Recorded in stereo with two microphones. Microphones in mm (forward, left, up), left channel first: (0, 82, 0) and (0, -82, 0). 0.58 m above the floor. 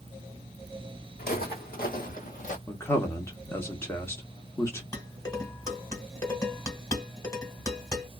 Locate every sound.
1.2 s footsteps: 70° left (ahead or behind), 1.6 m; by 2.6 s 50° left (ahead or behind), 1.0 m
2.7 s a man speaking: 15° left (ahead or behind), 0.9 m
4.9 s dishes clattering: 20° left (ahead or behind), 1.3 m